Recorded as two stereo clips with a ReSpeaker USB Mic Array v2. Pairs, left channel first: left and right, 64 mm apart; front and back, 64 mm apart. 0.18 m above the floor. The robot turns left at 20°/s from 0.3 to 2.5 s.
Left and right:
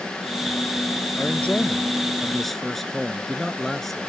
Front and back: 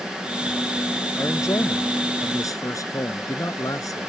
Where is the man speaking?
30° left; by 4.1 s 5° left.